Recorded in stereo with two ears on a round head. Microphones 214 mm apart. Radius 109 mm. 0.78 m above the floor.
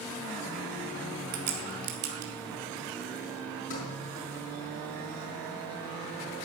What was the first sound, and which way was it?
A crack, 40° right (ahead or behind).